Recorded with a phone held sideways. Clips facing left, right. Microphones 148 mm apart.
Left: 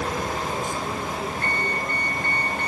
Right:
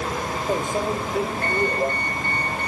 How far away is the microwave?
About 3 m.